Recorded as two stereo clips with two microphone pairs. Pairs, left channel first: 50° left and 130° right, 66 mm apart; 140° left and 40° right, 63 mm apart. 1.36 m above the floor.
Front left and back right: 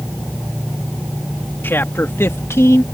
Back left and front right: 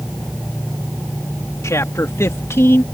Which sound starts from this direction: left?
A man speaking, at 1.6 s.